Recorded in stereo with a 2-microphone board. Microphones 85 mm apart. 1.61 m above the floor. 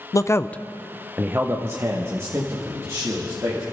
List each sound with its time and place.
0.1 s a man speaking: 40° left (ahead or behind), 0.6 m; by 3.6 s 35° right (ahead or behind), 3 m